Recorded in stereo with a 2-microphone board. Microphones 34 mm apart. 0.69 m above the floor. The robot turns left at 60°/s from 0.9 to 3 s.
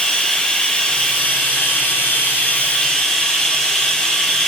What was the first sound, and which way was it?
Running water, 150° left.